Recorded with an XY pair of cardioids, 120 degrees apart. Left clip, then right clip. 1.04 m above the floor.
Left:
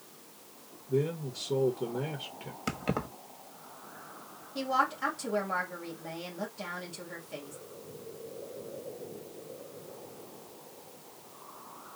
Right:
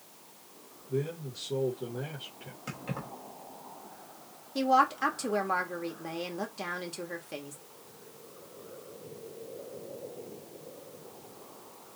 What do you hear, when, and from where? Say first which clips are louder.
0.9 s a man speaking: left 3 dB; 30° left, 1.2 m
2.7 s keys jangling: left 6 dB; 50° left, 1.2 m
4.5 s a woman speaking: right 4 dB; 40° right, 1.8 m